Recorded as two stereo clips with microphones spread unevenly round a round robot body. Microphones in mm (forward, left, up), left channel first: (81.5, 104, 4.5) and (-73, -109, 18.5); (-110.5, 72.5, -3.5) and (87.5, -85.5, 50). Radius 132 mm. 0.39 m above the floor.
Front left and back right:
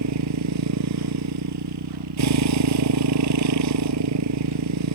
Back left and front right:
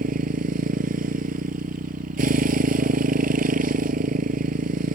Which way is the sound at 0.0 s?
95° right.